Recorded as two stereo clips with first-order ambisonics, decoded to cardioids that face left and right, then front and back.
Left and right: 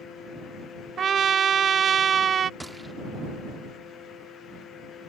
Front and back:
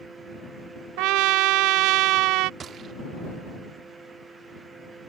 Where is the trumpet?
155° right.